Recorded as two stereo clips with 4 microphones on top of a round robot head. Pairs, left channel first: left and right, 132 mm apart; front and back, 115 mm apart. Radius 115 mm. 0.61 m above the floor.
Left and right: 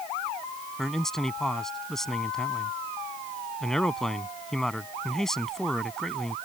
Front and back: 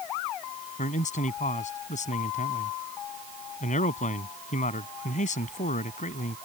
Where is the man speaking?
5° left.